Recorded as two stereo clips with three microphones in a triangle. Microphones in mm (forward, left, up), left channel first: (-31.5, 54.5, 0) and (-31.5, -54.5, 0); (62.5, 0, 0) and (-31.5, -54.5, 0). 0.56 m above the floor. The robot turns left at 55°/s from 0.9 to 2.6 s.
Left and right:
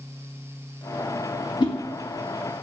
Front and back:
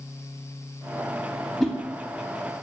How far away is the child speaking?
No child speaking in this recording.